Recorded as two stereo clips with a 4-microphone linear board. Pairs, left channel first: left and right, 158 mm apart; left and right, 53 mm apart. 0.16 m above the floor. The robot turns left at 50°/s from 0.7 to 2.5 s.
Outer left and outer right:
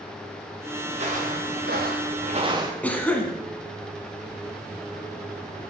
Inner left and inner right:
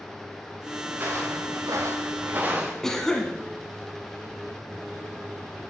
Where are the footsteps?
35° right (ahead or behind), 2.5 m; by 2.7 s 20° right (ahead or behind), 1.5 m.